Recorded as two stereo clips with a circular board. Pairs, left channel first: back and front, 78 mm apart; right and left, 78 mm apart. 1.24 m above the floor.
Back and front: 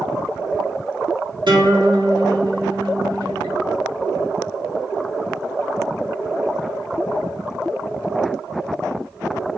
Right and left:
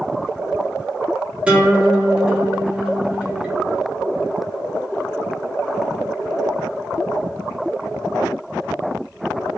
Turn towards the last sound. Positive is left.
turn(degrees=15)